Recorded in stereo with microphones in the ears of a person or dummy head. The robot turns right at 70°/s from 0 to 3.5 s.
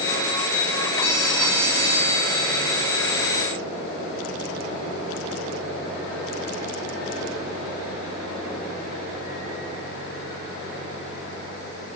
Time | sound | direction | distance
1.0 | a phone ringing | 150° left | 6.5 m